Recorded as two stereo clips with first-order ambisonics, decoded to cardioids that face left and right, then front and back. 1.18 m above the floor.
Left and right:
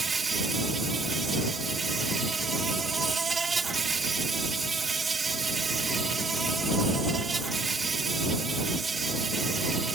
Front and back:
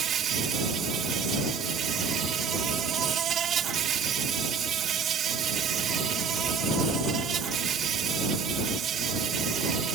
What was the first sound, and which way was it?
An insect, 150° right.